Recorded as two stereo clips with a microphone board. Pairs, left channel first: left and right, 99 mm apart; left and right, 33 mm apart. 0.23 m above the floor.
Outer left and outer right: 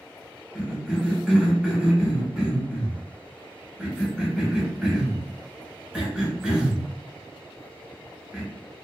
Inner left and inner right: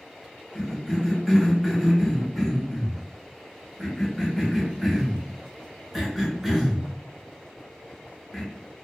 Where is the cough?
10° right (ahead or behind), 1.0 m.